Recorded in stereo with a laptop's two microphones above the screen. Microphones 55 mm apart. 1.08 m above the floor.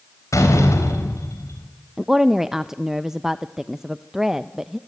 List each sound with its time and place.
0.3 s a door slam: 80° left, 4 m
2.0 s a woman speaking: 10° right (ahead or behind), 0.6 m